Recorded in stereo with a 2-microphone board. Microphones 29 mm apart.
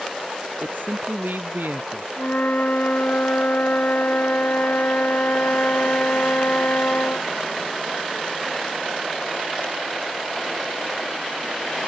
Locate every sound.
0.6 s a man speaking: 80° right
2.2 s a flute: 70° left (ahead or behind)